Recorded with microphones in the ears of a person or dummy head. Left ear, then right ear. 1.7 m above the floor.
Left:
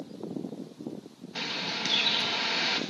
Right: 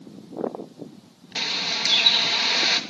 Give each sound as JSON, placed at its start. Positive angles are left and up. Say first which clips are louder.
{"t": 1.4, "sound": "a bird", "louder": "right 7 dB", "side_deg": -25, "distance_m": 2.5}